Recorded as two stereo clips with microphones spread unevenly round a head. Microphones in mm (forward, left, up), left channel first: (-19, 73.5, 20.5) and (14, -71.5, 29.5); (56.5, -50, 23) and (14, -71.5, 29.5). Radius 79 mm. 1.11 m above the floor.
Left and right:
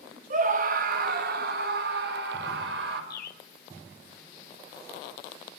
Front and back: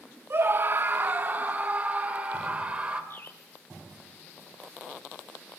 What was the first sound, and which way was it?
A scream, 115° right.